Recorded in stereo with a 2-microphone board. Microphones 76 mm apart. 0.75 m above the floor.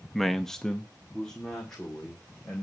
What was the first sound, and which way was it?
A man speaking, centre (ahead or behind).